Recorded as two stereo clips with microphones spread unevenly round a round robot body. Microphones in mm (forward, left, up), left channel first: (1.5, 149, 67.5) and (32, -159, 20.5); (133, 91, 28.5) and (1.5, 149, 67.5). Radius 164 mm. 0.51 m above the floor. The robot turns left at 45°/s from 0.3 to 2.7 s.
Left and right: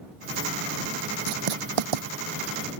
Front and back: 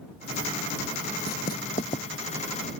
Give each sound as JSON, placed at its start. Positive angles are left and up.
{"t": 1.3, "sound": "writing", "azimuth_deg": -60}